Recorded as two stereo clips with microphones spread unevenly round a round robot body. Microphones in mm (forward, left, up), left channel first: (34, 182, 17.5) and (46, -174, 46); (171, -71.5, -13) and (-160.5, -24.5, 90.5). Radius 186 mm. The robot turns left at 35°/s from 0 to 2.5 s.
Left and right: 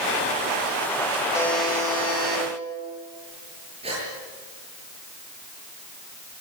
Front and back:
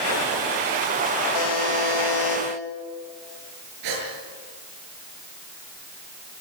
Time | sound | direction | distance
1.3 | a buzzer | 10° left | 4 m
3.8 | a gasp | 165° right | 7.5 m